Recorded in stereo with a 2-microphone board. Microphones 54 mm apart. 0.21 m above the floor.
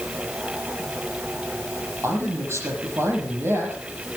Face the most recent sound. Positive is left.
turn(degrees=-55)  # may be behind; listen again after turning